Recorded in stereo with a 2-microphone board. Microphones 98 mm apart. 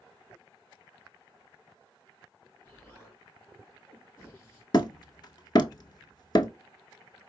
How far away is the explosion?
About 3.5 m.